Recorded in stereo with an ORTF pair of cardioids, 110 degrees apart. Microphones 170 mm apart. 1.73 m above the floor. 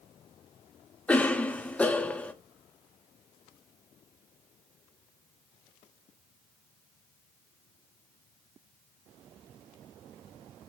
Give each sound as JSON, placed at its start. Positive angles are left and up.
{"t": 1.1, "sound": "a cough", "azimuth_deg": 10, "distance_m": 0.6}